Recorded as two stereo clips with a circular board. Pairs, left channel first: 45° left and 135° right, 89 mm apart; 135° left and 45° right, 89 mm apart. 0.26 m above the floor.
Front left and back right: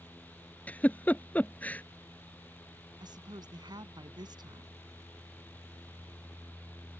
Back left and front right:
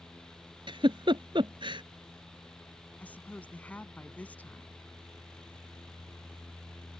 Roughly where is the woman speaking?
Behind right.